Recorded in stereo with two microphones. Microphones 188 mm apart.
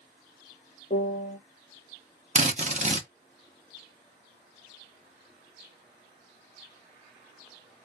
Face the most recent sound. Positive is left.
turn(degrees=-40)  # may be behind; listen again after turning